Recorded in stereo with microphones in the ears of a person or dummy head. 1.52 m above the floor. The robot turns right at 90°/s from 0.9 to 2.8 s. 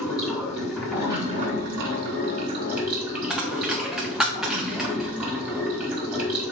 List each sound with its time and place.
0.0 s running water: 175° right, 2.5 m; by 6.5 s 5° right, 2.5 m
3.3 s a dropped coin: centre (ahead or behind), 1.2 m